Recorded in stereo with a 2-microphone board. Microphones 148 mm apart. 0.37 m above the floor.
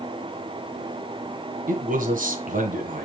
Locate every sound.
1.7 s a man speaking: 65° right (ahead or behind), 2.5 m